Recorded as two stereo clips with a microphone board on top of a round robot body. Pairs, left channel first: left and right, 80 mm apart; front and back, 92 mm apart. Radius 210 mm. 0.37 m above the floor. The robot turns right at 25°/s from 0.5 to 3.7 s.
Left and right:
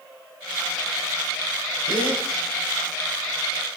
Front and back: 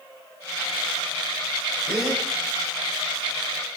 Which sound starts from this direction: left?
A gasp, at 1.9 s.